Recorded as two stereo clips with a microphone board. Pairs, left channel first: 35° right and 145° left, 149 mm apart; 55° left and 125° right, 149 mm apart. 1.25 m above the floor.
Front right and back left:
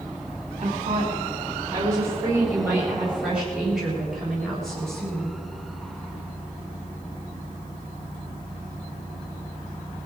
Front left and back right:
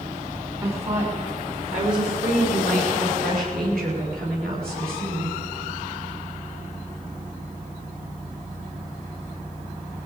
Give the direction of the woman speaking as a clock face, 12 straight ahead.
6 o'clock.